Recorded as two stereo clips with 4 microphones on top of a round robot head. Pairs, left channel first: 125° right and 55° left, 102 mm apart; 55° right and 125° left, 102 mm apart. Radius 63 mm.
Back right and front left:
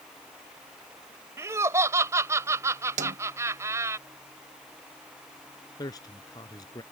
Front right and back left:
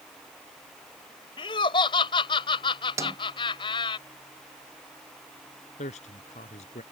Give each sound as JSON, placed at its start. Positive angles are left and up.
{"t": 1.4, "sound": "laughter", "azimuth_deg": -10}
{"t": 3.0, "sound": "a snare drum", "azimuth_deg": 60}
{"t": 5.8, "sound": "a man speaking", "azimuth_deg": -70}